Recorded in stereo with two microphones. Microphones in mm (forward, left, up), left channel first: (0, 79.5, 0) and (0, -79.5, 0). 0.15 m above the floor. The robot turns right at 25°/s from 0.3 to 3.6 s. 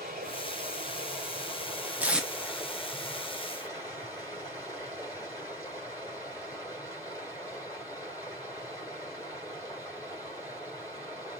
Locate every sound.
0.0 s running water: 60° right, 5 m; by 11.4 s 20° left, 5 m
2.0 s tape being pulled: 10° right (ahead or behind), 0.9 m; by 2.3 s centre (ahead or behind), 0.9 m